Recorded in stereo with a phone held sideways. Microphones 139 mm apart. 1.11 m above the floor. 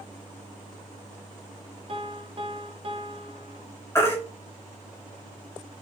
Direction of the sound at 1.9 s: 40° right (ahead or behind).